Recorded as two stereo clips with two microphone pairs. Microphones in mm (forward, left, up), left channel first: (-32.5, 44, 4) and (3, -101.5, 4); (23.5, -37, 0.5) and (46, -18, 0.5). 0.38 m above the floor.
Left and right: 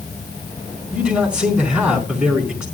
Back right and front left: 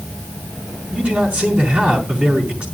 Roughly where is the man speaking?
Ahead.